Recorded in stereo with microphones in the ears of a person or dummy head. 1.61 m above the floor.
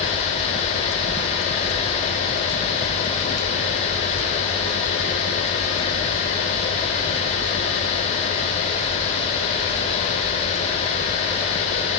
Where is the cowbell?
No cowbell in this recording.